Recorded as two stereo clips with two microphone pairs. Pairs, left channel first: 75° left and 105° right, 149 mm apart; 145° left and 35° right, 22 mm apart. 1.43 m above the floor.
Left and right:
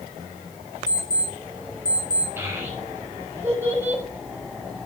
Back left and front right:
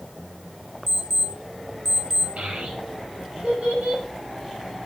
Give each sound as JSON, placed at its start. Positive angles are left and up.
{"t": 0.9, "sound": "an alarm clock", "azimuth_deg": 70, "distance_m": 6.0}
{"t": 2.4, "sound": "a child speaking", "azimuth_deg": -30, "distance_m": 5.0}